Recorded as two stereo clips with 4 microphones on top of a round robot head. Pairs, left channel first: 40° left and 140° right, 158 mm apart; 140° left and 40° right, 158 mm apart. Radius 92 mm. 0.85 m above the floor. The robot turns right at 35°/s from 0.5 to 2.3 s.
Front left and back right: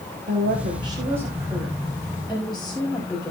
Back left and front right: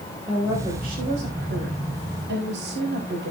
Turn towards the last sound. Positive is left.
turn(degrees=-45)